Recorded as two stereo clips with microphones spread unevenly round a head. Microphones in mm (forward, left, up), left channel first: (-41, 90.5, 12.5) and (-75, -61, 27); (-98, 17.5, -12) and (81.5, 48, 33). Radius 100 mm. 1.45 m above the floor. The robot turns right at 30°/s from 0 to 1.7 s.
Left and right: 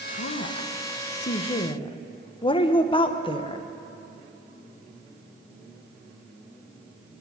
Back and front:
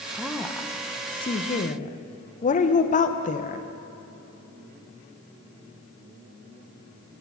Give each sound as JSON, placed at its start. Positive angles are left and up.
{"t": 0.1, "sound": "a woman speaking", "azimuth_deg": 90, "distance_m": 0.9}